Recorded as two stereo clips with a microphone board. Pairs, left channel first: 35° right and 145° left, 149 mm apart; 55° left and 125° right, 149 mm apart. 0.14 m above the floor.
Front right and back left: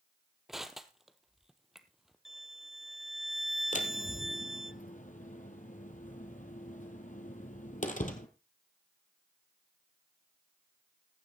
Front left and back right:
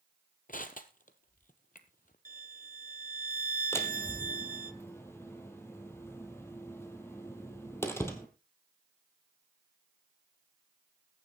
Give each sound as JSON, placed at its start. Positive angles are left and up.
{"t": 0.5, "sound": "crushing", "azimuth_deg": 60, "distance_m": 1.1}
{"t": 2.2, "sound": "a violin", "azimuth_deg": -125, "distance_m": 0.7}
{"t": 3.7, "sound": "a door slam", "azimuth_deg": -15, "distance_m": 1.7}